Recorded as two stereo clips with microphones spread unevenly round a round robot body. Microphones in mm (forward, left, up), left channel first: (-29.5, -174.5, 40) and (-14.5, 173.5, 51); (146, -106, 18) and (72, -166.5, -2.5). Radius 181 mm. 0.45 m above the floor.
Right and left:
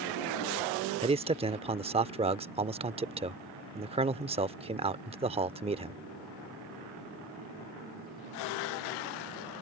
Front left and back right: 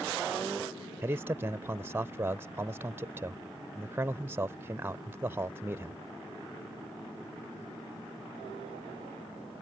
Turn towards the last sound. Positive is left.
turn(degrees=160)